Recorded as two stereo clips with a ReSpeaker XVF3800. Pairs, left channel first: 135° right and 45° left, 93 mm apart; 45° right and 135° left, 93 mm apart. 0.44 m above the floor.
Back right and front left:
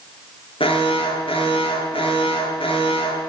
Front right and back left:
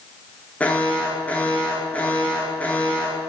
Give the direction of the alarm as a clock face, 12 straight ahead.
4 o'clock.